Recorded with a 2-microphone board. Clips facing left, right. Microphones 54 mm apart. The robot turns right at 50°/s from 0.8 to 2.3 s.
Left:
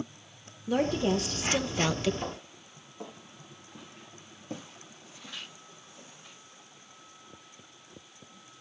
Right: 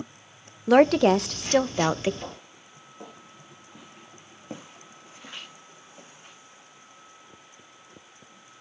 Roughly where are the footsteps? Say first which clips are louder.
Left 2 dB; centre.